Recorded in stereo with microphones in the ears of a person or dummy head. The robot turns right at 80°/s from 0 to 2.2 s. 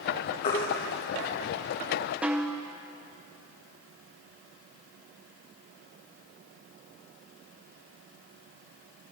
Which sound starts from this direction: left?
A baby crying, at 0.4 s.